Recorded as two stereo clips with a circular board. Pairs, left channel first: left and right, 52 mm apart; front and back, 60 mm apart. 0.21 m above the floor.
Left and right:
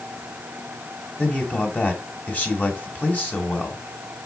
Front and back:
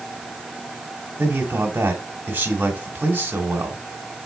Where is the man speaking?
135° left, 2 m.